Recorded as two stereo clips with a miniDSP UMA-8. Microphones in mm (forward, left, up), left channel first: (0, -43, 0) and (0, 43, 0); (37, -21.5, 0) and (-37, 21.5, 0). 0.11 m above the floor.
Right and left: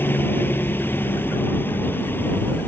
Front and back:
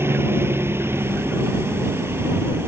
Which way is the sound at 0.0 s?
150° right.